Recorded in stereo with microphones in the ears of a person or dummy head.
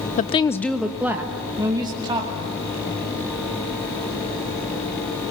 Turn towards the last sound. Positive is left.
turn(degrees=-25)  # may be behind; listen again after turning